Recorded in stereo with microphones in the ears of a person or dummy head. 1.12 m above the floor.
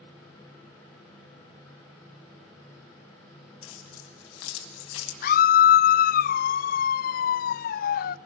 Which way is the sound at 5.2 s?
50° left (ahead or behind).